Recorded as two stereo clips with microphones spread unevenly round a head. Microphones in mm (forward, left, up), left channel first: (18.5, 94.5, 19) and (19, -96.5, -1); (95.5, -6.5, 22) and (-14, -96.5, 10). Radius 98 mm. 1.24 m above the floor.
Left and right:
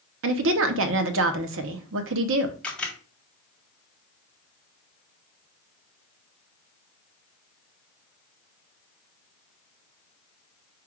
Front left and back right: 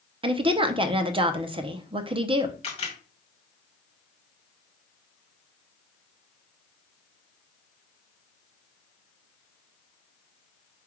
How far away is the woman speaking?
About 0.7 m.